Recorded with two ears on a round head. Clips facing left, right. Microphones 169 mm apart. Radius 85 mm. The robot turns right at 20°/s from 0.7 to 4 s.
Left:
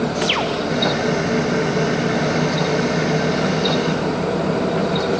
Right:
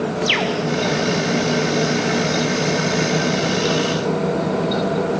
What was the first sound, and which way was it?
A bird, 20° right (ahead or behind).